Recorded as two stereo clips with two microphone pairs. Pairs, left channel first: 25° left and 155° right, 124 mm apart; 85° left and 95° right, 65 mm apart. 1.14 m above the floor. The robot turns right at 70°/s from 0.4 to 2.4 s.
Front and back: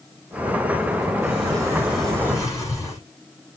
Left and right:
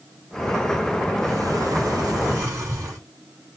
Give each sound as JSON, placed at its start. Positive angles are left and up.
{"t": 1.2, "sound": "a sliding door", "azimuth_deg": -125, "distance_m": 6.0}